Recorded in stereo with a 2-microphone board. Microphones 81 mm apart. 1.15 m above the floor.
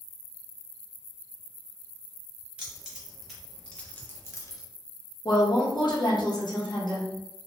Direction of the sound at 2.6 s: 10° right (ahead or behind).